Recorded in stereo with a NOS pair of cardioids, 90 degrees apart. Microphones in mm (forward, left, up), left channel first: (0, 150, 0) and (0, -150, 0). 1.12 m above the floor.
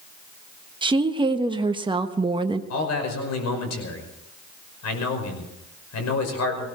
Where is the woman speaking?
15° right, 1.1 m.